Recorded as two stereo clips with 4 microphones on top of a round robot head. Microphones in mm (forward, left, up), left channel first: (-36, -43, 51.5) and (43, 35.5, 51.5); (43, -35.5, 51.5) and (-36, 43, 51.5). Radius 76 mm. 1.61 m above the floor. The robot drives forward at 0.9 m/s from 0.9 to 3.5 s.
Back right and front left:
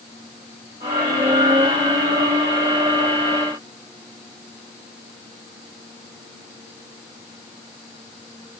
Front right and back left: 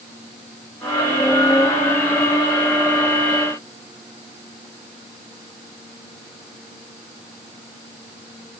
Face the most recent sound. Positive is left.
No sound to turn to.